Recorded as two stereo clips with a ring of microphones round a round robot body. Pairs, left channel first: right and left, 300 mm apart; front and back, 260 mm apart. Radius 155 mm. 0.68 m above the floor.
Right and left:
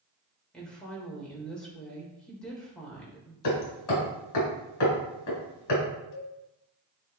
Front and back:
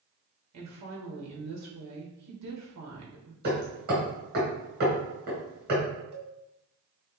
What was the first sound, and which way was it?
A woman speaking, 175° right.